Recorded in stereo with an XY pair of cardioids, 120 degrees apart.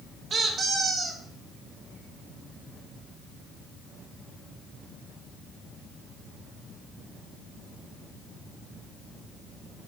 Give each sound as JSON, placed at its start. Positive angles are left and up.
{"t": 0.3, "sound": "a squeak", "azimuth_deg": -35, "distance_m": 1.8}